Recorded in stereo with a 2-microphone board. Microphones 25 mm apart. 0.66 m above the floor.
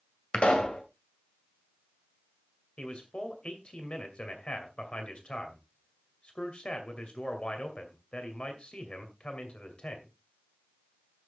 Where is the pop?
70° left (ahead or behind), 1.9 m.